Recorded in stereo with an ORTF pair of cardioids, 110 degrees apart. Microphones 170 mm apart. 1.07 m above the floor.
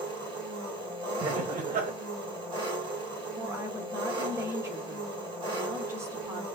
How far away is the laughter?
About 0.7 m.